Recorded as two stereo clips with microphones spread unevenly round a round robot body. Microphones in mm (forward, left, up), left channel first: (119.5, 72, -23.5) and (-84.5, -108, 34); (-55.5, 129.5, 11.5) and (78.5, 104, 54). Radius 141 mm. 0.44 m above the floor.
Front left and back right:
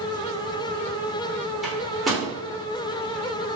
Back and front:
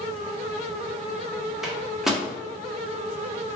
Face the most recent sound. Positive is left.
turn(degrees=110)